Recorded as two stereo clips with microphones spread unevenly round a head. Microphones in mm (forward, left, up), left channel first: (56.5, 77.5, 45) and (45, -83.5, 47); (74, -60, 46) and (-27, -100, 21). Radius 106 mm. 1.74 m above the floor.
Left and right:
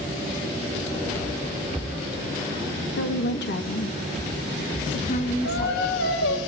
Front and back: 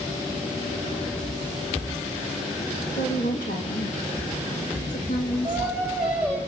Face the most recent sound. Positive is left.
turn(degrees=105)